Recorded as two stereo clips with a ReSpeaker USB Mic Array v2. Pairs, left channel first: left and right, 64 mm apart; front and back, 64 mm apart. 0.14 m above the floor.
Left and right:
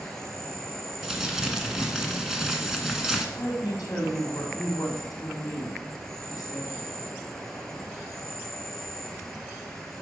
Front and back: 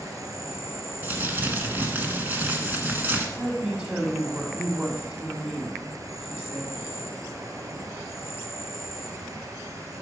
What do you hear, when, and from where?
0.0 s an insect: 175° left, 1.5 m
1.0 s crumpling: 160° right, 1.5 m
3.4 s a woman speaking: 115° left, 5 m